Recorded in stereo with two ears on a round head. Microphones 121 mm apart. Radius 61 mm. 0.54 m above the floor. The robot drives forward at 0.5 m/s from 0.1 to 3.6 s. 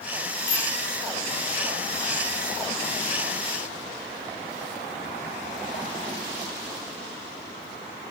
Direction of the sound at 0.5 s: 75° left (ahead or behind).